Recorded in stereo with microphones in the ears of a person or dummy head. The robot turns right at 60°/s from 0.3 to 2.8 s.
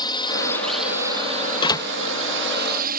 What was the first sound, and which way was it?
A drone, 25° left (ahead or behind).